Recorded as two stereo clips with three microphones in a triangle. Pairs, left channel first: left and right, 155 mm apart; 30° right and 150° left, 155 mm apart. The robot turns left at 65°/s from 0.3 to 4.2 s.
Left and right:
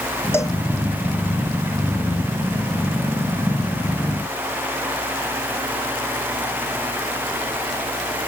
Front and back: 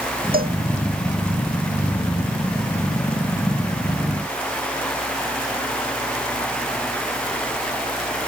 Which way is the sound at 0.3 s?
165° left.